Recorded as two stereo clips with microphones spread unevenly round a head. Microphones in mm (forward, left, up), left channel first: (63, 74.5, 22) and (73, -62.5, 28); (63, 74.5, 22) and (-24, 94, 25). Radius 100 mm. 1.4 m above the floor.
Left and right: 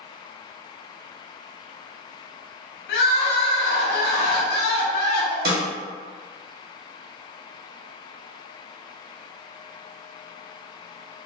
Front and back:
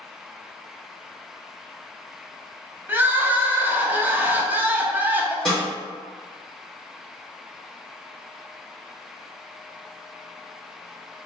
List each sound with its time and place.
2.9 s crying: 95° left, 0.6 m
5.5 s a snare drum: 100° right, 0.7 m